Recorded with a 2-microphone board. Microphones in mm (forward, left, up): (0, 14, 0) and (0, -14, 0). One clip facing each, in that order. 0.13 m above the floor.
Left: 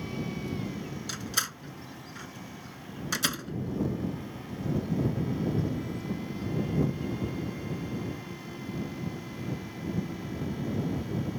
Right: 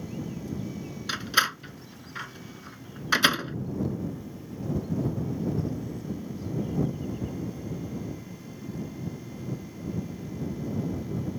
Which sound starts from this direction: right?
A door slam, at 1.1 s.